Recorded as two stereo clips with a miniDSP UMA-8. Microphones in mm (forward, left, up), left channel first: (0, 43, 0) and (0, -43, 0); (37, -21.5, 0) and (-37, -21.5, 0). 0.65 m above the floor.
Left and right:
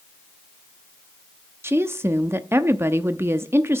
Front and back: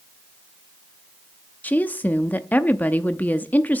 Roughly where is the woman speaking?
Ahead right.